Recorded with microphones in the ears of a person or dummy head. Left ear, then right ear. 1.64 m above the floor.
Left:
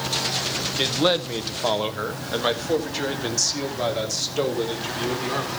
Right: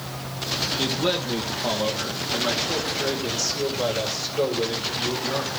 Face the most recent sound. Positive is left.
turn(degrees=80)